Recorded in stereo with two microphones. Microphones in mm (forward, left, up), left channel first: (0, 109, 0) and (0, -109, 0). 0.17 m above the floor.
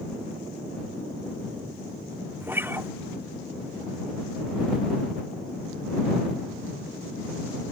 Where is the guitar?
10° right (ahead or behind).